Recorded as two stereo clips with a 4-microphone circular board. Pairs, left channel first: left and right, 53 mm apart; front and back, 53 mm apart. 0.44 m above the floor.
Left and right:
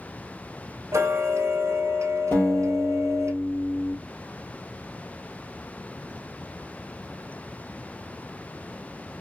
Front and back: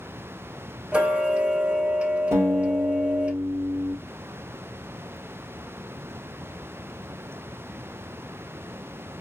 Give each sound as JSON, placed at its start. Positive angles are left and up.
{"t": 0.9, "sound": "ticking", "azimuth_deg": -115, "distance_m": 1.8}
{"t": 2.3, "sound": "a guitar", "azimuth_deg": 140, "distance_m": 3.0}